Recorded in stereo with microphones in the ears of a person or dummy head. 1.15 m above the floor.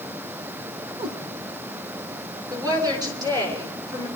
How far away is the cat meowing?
About 1.5 m.